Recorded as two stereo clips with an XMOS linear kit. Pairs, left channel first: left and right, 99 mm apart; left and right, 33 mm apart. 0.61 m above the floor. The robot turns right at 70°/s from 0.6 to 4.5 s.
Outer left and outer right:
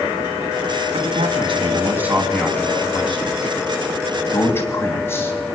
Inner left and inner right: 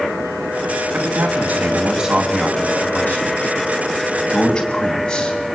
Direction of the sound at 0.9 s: 80° right.